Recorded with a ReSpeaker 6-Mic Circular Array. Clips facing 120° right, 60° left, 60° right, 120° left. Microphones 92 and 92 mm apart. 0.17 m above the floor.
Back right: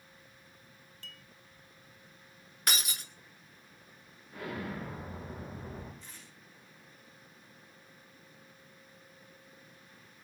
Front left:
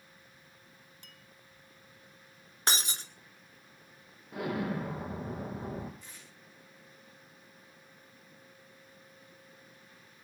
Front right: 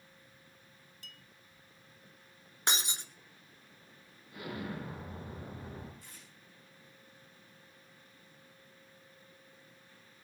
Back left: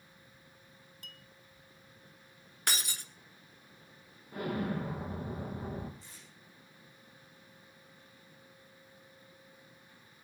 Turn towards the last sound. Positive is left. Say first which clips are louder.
# even, even
turn(degrees=-20)